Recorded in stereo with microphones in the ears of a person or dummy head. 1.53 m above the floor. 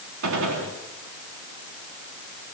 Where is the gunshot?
80° right, 3.5 m.